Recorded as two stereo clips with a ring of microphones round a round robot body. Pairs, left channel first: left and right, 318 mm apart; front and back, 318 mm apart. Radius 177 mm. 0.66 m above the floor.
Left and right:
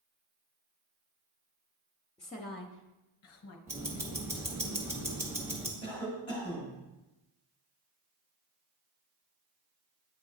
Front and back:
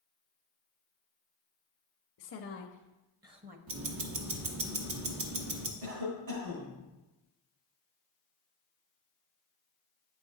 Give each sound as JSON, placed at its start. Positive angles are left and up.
{"t": 2.2, "sound": "a woman speaking", "azimuth_deg": 20, "distance_m": 0.8}
{"t": 3.7, "sound": "ticking", "azimuth_deg": -170, "distance_m": 0.9}
{"t": 5.8, "sound": "a cough", "azimuth_deg": 165, "distance_m": 2.5}